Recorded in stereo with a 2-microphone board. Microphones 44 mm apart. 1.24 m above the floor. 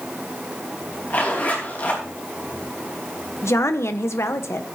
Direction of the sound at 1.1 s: 40° left (ahead or behind).